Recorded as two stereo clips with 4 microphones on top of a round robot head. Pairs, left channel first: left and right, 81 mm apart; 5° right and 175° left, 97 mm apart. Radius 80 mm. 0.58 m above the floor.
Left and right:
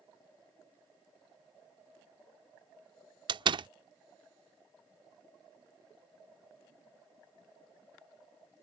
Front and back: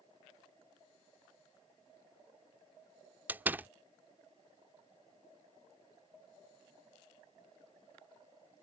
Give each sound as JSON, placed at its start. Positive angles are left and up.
{"t": 3.3, "sound": "a door slam", "azimuth_deg": -110}